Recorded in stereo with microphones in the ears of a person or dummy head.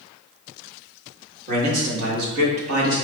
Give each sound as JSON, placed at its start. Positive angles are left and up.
{"t": 1.5, "sound": "a man speaking", "side_deg": -50, "distance_m": 1.5}